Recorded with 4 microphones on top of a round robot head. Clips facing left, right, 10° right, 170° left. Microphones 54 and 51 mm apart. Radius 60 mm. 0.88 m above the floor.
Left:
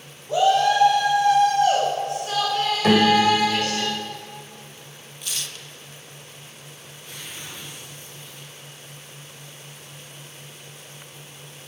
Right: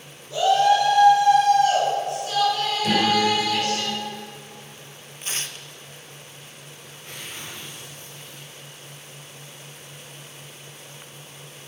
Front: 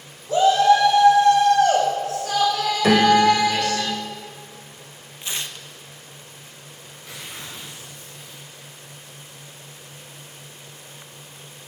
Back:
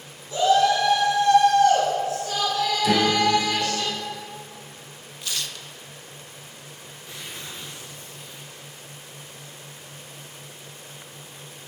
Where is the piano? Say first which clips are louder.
Left 4 dB, front 7 dB; 30° left, 1.6 m.